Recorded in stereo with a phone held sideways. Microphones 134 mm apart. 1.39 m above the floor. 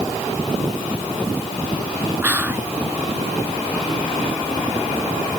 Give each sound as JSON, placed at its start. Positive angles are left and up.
{"t": 2.2, "sound": "whispering", "side_deg": -15}